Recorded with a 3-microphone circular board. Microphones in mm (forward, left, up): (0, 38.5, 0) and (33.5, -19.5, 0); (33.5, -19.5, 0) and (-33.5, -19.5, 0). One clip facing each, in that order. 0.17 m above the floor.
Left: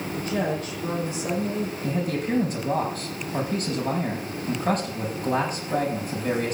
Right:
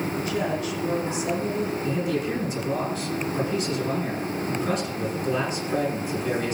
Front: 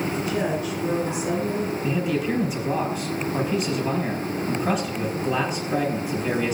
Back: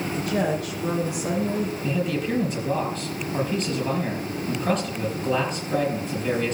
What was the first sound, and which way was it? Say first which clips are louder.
A woman speaking: left 3 dB, even; 160° left.